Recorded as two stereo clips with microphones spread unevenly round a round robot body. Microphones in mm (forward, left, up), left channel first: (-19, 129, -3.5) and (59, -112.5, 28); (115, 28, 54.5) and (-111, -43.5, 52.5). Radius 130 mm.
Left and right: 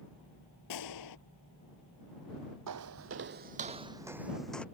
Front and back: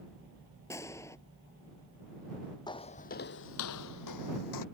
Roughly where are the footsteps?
Ahead right.